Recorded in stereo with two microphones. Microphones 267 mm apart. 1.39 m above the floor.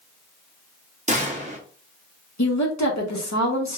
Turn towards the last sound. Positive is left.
turn(degrees=85)